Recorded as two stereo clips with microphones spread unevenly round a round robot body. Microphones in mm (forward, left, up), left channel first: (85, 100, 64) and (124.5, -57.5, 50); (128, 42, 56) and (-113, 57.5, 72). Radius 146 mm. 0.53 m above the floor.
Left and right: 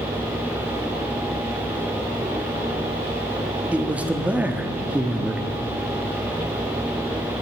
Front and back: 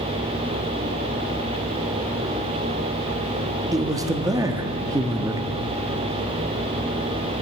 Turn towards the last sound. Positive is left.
turn(degrees=-125)